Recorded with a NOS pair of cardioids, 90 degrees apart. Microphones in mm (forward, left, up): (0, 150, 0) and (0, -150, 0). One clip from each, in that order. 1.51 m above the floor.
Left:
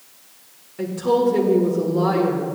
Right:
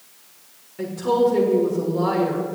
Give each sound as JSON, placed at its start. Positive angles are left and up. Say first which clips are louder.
{"t": 0.8, "sound": "a woman speaking", "louder": "even", "azimuth_deg": 10, "distance_m": 1.6}